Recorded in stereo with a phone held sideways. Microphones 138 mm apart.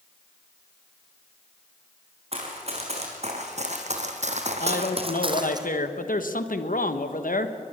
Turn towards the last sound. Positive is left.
turn(degrees=85)